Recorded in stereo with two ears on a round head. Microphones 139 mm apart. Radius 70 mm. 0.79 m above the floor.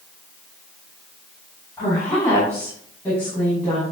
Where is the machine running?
I don't hear a machine running.